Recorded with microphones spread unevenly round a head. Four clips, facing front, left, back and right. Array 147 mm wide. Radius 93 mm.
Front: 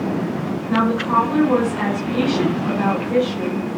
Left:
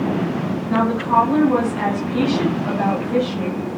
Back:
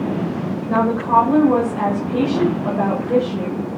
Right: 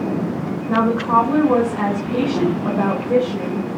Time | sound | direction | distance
0.7 | a woman speaking | 125° right | 9 m